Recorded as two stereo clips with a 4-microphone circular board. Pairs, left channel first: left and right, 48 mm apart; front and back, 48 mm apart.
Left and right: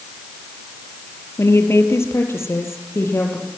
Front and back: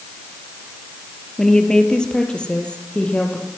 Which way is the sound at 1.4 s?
80° left.